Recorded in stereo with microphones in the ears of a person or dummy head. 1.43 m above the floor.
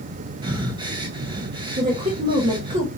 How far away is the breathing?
About 0.6 m.